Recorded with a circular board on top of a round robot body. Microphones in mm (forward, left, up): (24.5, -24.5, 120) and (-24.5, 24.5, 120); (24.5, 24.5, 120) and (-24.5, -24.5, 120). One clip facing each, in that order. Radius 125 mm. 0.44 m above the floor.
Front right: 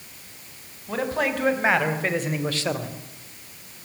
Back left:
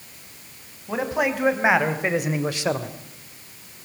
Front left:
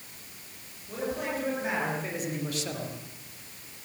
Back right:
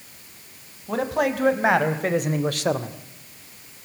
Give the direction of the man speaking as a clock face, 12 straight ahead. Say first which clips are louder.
Back left 1 dB, back right 9 dB; 5 o'clock.